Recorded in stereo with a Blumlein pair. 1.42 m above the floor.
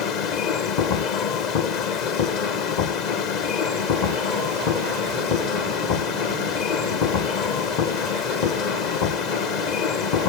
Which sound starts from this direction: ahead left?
A machine running, at 0.0 s.